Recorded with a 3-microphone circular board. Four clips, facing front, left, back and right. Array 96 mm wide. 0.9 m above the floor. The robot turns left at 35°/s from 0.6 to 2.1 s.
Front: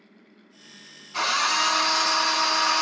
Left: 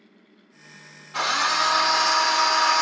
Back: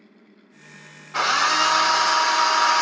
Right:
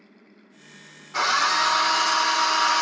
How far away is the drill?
About 0.8 m.